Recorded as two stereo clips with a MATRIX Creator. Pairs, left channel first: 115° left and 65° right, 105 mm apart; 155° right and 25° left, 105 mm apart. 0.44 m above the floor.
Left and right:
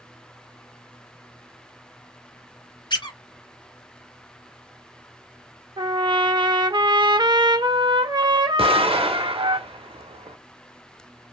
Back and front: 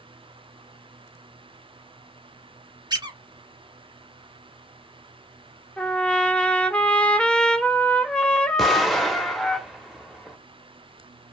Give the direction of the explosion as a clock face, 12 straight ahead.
2 o'clock.